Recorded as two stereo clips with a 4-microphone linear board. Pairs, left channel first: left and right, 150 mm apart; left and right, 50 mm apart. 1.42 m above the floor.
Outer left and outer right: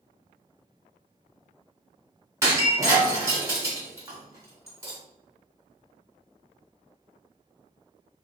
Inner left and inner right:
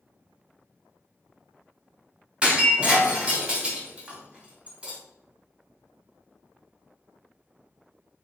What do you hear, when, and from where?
2.4 s breaking glass: 20° right (ahead or behind), 1.1 m